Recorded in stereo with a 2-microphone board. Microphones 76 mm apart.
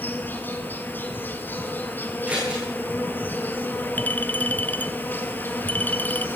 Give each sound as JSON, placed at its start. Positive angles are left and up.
{"t": 0.0, "sound": "an insect", "side_deg": 25, "distance_m": 0.9}
{"t": 2.3, "sound": "scissors", "side_deg": -15, "distance_m": 7.5}
{"t": 4.0, "sound": "a clink", "side_deg": 25, "distance_m": 0.7}